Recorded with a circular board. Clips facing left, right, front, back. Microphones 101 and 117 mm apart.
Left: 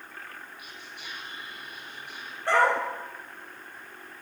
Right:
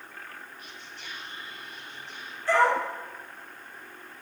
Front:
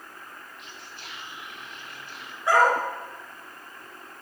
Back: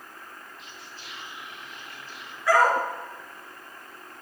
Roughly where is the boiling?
No boiling in this recording.